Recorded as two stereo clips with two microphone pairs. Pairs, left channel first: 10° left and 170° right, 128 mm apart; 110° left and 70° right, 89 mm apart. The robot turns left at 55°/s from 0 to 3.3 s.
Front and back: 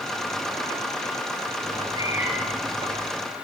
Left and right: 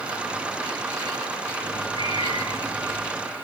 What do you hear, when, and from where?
1.6 s a cat meowing: 145° left, 5.5 m; by 3.1 s 60° left, 5.5 m